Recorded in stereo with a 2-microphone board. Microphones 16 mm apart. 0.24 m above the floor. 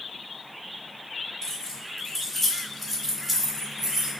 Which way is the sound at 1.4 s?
25° left (ahead or behind).